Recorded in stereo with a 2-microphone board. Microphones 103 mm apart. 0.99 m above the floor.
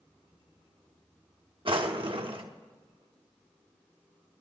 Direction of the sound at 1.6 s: 55° right (ahead or behind).